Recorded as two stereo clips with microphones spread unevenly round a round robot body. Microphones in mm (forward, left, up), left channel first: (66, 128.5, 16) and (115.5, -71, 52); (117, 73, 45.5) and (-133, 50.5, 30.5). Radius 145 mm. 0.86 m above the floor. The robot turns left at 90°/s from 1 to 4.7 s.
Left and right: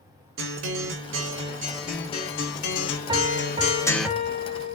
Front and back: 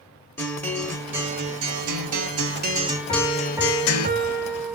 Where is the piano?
55° right, 0.6 m; by 4.8 s 160° left, 0.6 m.